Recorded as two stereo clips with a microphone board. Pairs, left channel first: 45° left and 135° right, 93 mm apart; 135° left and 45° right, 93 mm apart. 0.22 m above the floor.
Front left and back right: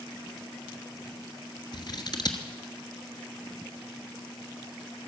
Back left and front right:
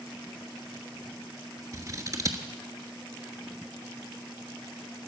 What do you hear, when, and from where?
1.7 s scissors: 5° left, 1.3 m